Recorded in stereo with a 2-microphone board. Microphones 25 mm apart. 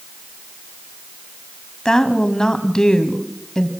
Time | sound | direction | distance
1.9 | a woman speaking | 30° left (ahead or behind) | 1.4 m